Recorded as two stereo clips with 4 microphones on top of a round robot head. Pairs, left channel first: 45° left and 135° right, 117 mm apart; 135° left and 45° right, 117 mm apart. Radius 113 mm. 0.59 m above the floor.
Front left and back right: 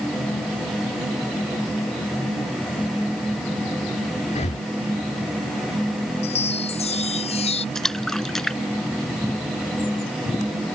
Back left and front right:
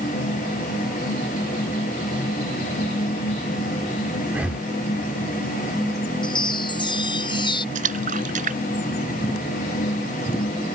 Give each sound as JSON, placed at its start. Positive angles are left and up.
{"t": 4.3, "sound": "breathing", "azimuth_deg": 35}
{"t": 6.2, "sound": "a chime", "azimuth_deg": 85}
{"t": 7.8, "sound": "a splash", "azimuth_deg": -40}